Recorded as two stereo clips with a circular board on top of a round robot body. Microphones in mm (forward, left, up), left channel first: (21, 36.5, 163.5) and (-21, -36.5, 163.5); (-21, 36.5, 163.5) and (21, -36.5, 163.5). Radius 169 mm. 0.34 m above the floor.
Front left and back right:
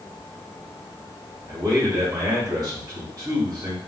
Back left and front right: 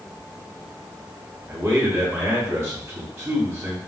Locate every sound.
1.5 s a man speaking: 105° right, 1.4 m